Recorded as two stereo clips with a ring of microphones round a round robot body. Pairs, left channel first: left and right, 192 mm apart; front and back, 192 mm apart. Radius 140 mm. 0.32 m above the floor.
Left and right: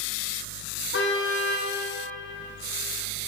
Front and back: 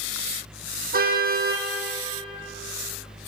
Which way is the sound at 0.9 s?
140° left.